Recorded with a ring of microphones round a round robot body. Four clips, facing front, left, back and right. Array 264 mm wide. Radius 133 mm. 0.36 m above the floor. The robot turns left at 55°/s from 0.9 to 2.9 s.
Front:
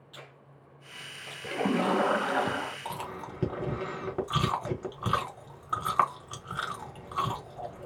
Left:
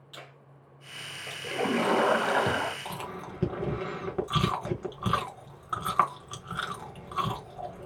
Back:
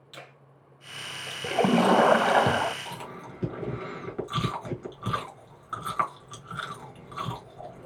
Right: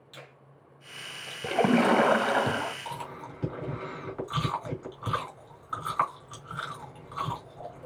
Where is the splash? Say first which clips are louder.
Right 4 dB, back 6 dB; 130° right, 0.5 m; by 2.8 s 160° left, 0.5 m.